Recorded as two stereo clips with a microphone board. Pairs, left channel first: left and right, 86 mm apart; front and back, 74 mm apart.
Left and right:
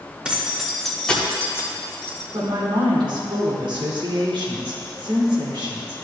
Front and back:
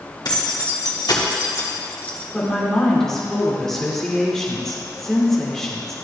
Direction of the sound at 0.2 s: 15° right.